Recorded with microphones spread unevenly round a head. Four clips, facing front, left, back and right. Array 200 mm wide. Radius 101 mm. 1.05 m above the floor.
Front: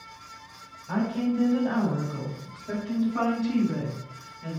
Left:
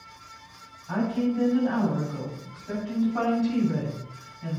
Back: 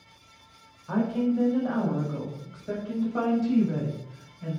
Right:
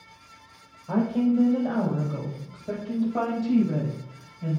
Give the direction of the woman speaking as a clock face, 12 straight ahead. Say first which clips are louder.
Right 3 dB, back 1 dB; 4 o'clock.